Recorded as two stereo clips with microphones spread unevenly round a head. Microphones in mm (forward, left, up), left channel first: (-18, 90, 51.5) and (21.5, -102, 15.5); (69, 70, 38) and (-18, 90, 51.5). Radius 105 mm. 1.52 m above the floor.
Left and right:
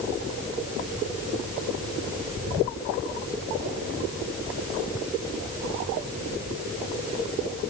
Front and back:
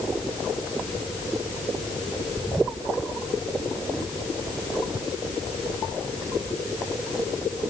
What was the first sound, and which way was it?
Only background noise.